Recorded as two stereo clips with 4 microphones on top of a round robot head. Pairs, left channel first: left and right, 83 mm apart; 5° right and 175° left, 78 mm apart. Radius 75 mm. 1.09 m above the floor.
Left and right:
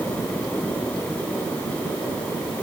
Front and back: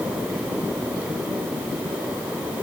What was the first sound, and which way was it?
Only background noise.